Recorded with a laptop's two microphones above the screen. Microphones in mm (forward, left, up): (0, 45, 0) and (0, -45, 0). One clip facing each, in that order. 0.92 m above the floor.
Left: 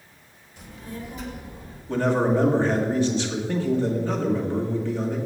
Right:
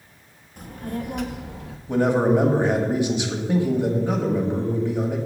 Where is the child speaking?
40° right (ahead or behind), 1.1 m; by 1.8 s 70° right (ahead or behind), 0.9 m.